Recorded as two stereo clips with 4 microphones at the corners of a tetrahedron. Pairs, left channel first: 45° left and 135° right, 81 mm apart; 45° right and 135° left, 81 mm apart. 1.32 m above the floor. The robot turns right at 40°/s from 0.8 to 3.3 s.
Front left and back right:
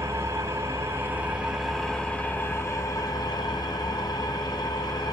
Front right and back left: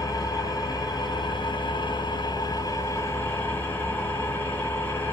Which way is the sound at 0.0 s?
85° right.